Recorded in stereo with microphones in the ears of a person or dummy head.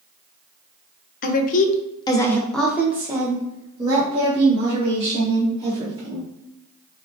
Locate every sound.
1.2 s a woman speaking: 50° left (ahead or behind), 0.6 m; by 6.2 s 35° right (ahead or behind), 2.5 m